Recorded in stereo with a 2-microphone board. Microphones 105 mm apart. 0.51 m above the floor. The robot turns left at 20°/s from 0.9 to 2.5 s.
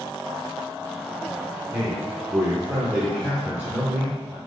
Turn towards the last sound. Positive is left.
turn(degrees=-20)  # may be behind; listen again after turning